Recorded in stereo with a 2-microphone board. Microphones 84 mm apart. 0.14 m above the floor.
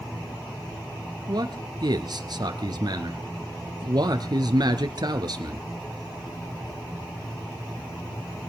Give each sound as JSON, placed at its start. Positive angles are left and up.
{"t": 1.3, "sound": "a man speaking", "side_deg": -55, "distance_m": 1.7}